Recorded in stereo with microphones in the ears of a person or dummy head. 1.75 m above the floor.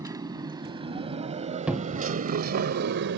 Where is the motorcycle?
20° right (ahead or behind); by 3.2 s 60° right (ahead or behind).